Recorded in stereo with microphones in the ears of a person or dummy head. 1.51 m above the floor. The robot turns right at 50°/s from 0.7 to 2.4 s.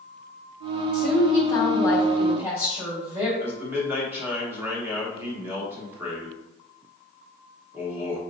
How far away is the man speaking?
About 1.1 m.